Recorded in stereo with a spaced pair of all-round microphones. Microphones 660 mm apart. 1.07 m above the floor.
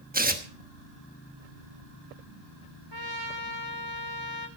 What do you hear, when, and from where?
0.1 s tearing paper: 15° right (ahead or behind), 1.1 m
2.9 s a trumpet: 35° right (ahead or behind), 1.3 m